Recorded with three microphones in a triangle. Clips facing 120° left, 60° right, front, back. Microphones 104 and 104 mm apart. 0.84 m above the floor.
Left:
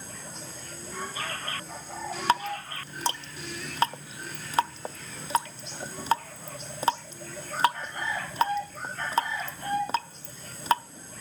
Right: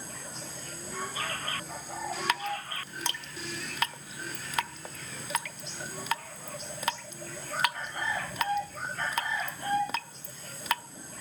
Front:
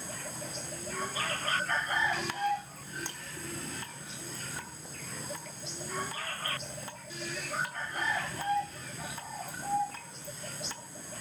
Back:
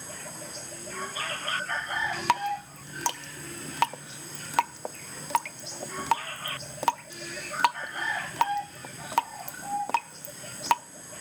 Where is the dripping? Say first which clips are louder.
Left 9 dB, back 5 dB; straight behind, 0.5 m.